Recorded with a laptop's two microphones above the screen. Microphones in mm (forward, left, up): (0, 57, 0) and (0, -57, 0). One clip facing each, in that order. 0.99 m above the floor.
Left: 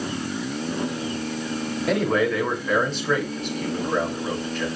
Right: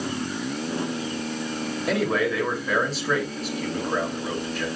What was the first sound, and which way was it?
A man speaking, centre (ahead or behind).